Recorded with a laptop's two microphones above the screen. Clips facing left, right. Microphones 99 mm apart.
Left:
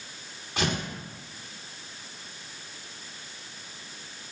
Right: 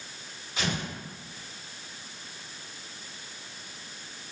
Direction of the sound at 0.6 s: 65° left (ahead or behind).